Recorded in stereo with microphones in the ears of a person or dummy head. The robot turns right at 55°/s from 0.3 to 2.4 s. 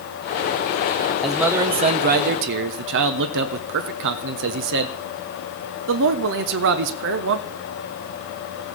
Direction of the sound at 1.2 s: Straight behind.